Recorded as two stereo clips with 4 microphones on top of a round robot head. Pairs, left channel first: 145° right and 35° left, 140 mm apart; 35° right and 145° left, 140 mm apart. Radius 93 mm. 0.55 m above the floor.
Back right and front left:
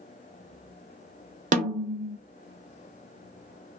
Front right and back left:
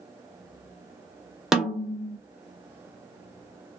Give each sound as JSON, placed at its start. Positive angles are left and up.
{"t": 1.5, "sound": "a snare drum", "azimuth_deg": 60, "distance_m": 0.7}